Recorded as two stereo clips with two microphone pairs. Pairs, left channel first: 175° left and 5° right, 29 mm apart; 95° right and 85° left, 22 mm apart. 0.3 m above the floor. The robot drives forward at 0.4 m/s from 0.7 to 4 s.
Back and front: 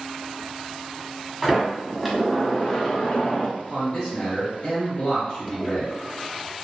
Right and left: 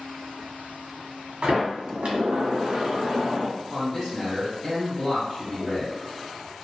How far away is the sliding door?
About 0.8 m.